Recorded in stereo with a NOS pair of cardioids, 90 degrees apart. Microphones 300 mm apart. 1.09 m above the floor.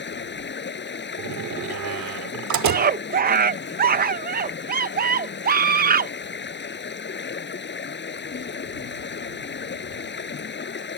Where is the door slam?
65° right.